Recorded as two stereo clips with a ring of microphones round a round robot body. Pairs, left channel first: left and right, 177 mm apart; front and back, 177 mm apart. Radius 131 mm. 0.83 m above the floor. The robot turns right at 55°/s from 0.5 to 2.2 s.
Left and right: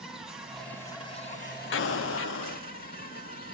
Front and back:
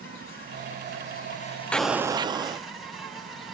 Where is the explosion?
85° left, 0.6 m; by 2.6 s 110° left, 0.6 m.